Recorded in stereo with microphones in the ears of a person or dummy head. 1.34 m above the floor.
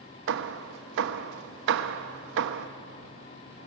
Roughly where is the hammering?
Right.